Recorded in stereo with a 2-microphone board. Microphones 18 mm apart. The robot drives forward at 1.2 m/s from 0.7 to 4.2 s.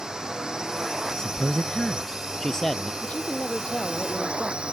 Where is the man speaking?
45° left (ahead or behind); by 2.9 s 25° left (ahead or behind).